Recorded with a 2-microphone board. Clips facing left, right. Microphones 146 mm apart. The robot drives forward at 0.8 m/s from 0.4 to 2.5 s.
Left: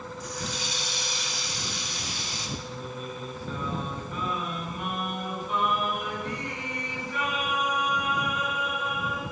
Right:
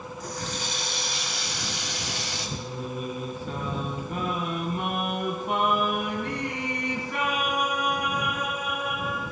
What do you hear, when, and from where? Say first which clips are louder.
0.2 s a running tap: right 2 dB; 45° right (ahead or behind), 1.9 m; by 2.5 s 65° right (ahead or behind), 1.5 m
2.6 s singing: right 4 dB; 65° right (ahead or behind), 3 m